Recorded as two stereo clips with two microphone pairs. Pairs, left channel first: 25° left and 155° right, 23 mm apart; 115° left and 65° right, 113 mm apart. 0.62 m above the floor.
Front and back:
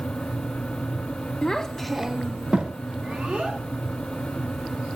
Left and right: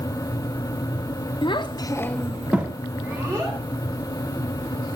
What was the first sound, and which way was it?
A child speaking, 80° left.